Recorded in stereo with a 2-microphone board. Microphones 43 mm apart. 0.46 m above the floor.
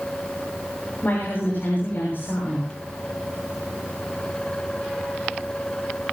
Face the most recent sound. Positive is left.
turn(degrees=50)  # may be behind; listen again after turning